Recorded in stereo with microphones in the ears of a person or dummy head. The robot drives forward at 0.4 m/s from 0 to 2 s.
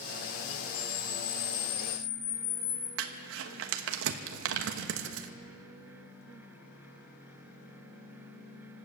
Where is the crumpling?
70° right (ahead or behind), 1.2 m.